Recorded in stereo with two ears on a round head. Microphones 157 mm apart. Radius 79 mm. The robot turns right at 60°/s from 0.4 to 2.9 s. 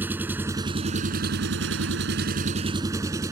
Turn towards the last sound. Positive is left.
turn(degrees=-20)